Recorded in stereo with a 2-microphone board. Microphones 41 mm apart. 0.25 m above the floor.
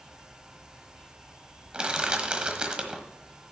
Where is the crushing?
25° right (ahead or behind), 1.2 m.